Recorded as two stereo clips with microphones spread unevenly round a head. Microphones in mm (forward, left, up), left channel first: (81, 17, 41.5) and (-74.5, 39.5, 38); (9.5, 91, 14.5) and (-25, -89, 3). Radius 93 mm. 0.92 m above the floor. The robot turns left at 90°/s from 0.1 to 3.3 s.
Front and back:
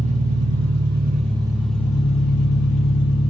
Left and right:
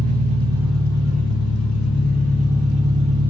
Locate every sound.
0.0 s an engine running: 135° right, 0.9 m; by 3.3 s 65° right, 0.9 m